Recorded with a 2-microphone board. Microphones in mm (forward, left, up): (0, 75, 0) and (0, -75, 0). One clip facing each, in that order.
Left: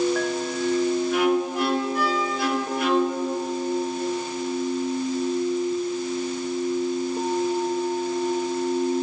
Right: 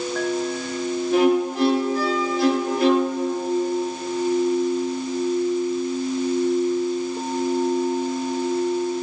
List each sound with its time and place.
1.1 s a violin: 30° right (ahead or behind), 1.5 m